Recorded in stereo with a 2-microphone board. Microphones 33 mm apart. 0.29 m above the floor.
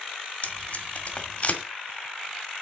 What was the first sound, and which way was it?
Tape being pulled, 40° left (ahead or behind).